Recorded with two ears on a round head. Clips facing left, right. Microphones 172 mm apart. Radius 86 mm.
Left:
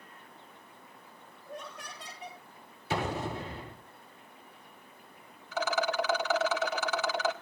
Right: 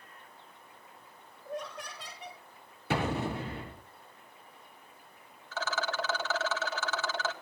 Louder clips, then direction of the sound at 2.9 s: Right 2 dB; 50° right (ahead or behind).